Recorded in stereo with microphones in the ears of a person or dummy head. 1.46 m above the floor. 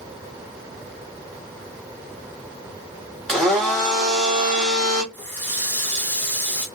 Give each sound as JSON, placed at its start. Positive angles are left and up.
{"t": 3.3, "sound": "a blender", "side_deg": 0, "distance_m": 0.8}
{"t": 5.1, "sound": "a running tap", "side_deg": 5, "distance_m": 0.7}